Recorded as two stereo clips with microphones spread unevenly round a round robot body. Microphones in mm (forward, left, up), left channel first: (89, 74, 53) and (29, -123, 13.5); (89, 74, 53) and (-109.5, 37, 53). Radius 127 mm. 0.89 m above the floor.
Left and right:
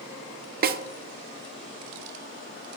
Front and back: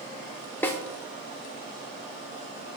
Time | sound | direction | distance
0.6 | a snare drum | 70° right | 0.5 m